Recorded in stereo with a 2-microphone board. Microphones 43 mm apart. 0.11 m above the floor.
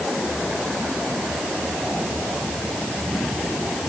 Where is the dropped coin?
No dropped coin in this recording.